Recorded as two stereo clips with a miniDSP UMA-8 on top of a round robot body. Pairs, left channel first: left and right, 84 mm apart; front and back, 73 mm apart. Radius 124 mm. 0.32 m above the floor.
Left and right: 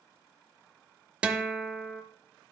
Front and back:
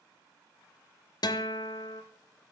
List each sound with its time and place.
1.2 s a guitar: 15° right, 0.7 m